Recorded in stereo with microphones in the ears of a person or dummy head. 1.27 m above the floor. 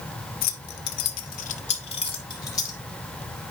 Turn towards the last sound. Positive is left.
turn(degrees=25)  # may be behind; listen again after turning